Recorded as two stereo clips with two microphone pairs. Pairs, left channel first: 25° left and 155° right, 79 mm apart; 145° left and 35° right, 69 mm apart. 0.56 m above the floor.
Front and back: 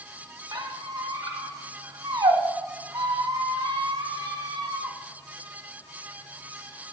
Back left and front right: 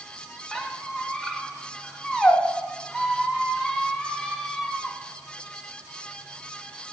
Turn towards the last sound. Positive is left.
turn(degrees=-130)